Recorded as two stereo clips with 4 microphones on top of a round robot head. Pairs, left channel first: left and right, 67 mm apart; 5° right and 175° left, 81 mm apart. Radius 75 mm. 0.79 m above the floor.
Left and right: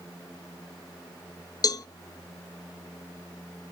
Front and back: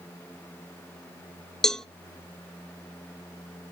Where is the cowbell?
80° left, 0.7 m.